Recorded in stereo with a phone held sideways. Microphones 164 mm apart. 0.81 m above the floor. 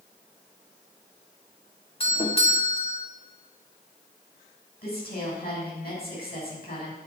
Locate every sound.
2.0 s a doorbell: 35° left (ahead or behind), 2 m
4.8 s a woman speaking: 70° left (ahead or behind), 6.5 m